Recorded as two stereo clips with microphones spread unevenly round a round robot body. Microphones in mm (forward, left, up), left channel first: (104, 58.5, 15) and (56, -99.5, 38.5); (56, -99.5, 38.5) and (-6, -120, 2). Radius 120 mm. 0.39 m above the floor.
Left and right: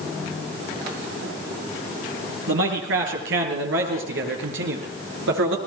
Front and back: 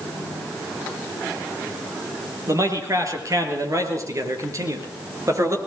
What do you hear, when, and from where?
2.5 s a man speaking: 130° right, 7 m; by 5.6 s 125° right, 6 m